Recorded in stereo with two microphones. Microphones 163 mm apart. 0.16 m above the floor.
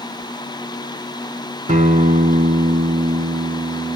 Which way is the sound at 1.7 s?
50° right (ahead or behind).